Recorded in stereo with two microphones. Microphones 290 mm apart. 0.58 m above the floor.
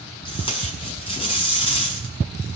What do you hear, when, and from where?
0.2 s tape being pulled: 20° left (ahead or behind), 6 m